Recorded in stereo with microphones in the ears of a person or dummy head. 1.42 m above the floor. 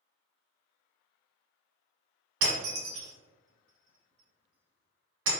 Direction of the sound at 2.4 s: 65° right (ahead or behind).